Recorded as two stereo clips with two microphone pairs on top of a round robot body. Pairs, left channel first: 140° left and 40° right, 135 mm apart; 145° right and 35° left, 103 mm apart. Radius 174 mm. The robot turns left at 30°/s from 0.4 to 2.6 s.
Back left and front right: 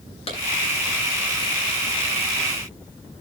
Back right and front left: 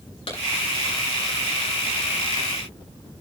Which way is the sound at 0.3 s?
175° right.